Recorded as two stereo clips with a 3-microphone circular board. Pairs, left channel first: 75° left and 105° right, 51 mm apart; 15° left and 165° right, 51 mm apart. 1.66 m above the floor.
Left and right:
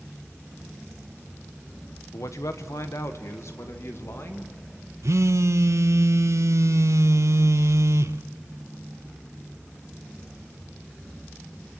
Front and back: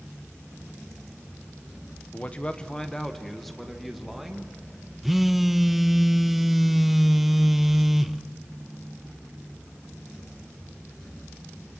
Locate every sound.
2.1 s a man speaking: 75° left, 1.2 m; by 4.9 s 115° left, 3 m
5.0 s a phone buzzing: 80° right, 0.6 m